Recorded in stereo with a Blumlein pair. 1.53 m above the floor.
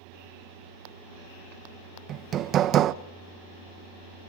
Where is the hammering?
30° right, 0.7 m.